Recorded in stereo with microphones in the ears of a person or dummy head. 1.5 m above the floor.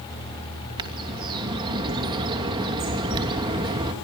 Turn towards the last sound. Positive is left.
turn(degrees=-30)  # may be behind; listen again after turning